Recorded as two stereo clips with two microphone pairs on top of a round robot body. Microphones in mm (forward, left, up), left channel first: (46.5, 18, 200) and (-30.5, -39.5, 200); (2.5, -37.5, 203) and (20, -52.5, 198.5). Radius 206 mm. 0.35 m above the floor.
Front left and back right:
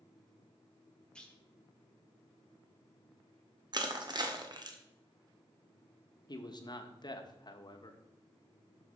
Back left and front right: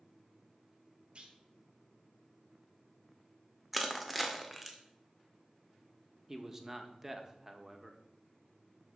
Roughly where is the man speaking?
Ahead.